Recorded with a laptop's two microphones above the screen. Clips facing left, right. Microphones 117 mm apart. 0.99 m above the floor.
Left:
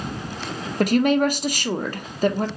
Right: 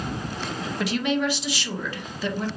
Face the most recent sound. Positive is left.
turn(degrees=45)  # may be behind; listen again after turning